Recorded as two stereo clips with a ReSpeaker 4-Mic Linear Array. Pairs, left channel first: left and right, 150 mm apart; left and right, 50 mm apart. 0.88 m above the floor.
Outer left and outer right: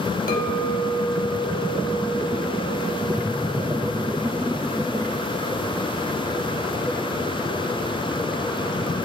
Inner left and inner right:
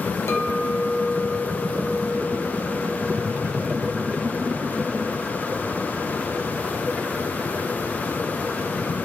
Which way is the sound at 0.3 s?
70° left (ahead or behind).